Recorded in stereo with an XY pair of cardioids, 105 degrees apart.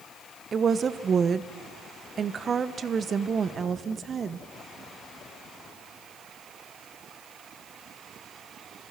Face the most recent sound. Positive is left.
turn(degrees=-40)